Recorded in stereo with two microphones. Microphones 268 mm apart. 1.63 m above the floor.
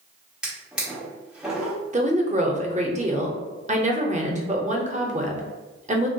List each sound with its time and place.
0.4 s a drawer: 5° right (ahead or behind), 1.0 m
1.9 s a woman speaking: 25° right (ahead or behind), 0.5 m